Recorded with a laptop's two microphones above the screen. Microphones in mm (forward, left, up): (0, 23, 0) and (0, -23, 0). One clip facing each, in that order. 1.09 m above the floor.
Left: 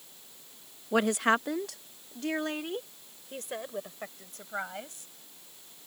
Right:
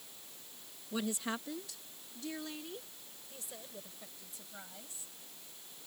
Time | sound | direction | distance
0.9 | a woman speaking | 70° left (ahead or behind) | ?